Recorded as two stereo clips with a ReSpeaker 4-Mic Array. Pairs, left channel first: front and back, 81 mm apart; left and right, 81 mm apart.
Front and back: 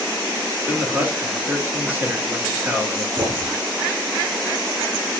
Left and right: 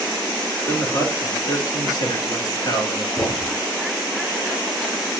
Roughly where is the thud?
Behind left.